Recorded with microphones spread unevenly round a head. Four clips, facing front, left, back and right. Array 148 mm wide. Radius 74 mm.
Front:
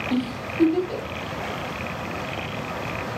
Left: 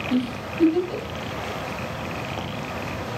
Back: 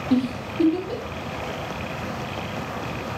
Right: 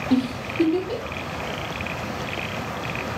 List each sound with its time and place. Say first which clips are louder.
0.1 s a giggle: right 3 dB, back 5 dB; 95° right, 1.0 m